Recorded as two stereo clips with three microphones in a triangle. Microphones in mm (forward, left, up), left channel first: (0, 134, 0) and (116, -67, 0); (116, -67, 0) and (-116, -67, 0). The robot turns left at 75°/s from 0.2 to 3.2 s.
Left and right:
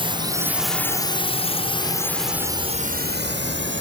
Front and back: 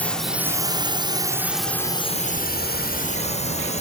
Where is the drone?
75° right; by 3.8 s 55° right.